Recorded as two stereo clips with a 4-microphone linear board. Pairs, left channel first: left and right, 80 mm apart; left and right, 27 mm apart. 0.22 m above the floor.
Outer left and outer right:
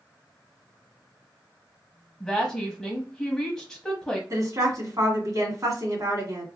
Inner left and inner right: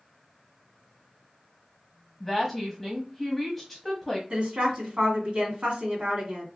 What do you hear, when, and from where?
2.2 s a woman speaking: 5° left (ahead or behind), 1.0 m
4.3 s a woman speaking: 45° right (ahead or behind), 2 m